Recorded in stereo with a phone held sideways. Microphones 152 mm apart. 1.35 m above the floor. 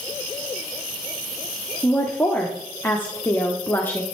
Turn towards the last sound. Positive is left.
turn(degrees=10)  # may be behind; listen again after turning